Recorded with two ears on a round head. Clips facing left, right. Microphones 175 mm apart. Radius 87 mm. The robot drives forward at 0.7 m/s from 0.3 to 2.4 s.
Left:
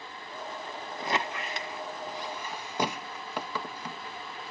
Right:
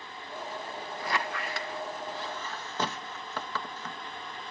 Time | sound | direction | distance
1.0 | a squeak | 20° left (ahead or behind) | ?